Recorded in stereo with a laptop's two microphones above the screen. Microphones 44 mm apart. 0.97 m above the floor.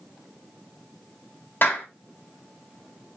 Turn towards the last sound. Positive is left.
turn(degrees=50)  # may be behind; listen again after turning